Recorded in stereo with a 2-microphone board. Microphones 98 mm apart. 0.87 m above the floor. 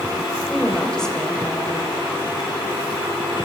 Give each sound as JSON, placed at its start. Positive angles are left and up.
{"t": 0.5, "sound": "a woman speaking", "side_deg": 5, "distance_m": 4.0}